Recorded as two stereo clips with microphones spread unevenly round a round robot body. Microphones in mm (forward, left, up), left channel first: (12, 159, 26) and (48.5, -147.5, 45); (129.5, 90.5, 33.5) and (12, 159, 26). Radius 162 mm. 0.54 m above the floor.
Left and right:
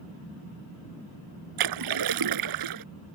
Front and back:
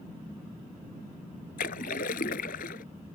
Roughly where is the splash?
Right.